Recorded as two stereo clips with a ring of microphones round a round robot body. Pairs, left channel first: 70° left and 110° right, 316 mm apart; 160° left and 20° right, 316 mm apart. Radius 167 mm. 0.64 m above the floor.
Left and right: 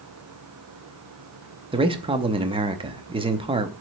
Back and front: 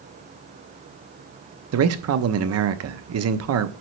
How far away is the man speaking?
About 0.7 m.